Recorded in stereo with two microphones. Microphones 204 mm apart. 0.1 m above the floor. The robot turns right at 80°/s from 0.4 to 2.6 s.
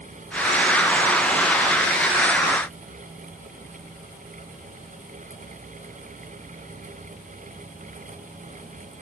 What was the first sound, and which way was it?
Only background noise.